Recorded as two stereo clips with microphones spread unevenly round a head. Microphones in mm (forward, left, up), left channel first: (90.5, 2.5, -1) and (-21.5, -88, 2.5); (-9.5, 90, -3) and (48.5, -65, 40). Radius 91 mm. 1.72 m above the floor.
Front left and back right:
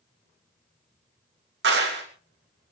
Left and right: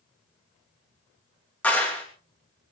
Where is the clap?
165° right, 3 m.